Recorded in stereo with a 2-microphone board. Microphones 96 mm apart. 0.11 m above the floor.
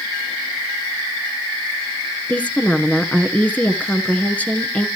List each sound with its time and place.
2.3 s a woman speaking: 15° left (ahead or behind), 1.3 m